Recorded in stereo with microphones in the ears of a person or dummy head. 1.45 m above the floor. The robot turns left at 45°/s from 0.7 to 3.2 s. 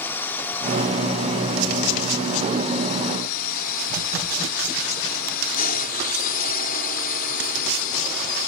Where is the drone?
175° left; by 8.5 s 60° left.